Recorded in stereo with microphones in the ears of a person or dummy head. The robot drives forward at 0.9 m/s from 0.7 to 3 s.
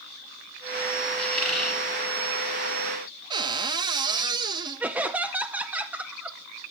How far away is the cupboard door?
About 1.5 m.